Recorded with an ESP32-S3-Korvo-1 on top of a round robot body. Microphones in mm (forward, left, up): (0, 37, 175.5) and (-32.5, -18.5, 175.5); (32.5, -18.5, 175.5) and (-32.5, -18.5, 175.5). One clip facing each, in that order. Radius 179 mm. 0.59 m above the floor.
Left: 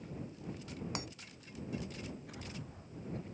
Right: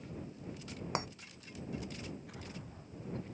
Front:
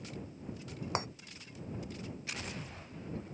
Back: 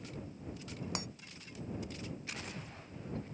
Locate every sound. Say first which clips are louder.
0.9 s breaking glass: right 8 dB, front 8 dB; 60° right